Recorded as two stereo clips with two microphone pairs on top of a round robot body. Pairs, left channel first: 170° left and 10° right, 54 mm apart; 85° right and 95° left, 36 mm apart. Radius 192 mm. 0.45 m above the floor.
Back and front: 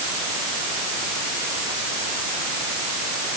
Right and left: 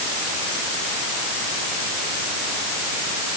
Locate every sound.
Only background noise.